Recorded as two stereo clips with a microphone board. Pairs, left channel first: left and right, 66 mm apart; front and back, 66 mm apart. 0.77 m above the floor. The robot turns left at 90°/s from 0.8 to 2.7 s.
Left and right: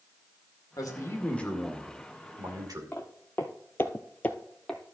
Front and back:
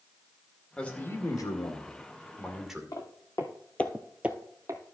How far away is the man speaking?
About 2 m.